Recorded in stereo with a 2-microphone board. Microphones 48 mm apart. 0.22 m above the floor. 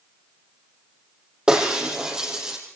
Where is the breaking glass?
20° right (ahead or behind), 5.5 m.